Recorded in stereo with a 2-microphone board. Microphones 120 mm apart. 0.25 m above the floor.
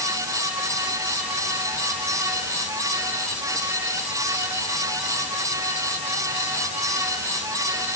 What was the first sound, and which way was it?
Only background noise.